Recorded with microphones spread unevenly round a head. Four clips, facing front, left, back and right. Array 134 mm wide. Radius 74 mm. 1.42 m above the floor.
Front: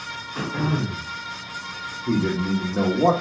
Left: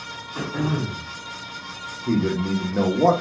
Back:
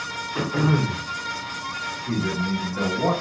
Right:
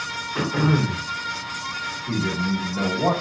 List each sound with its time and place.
0.3 s throat clearing: 175° left, 1.3 m
2.1 s a man speaking: 60° left, 1.4 m